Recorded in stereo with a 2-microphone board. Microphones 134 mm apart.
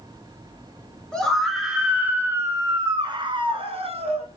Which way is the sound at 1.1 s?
5° left (ahead or behind).